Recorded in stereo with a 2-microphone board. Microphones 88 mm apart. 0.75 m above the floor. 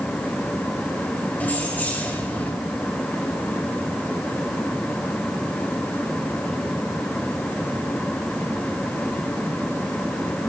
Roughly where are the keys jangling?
Centre.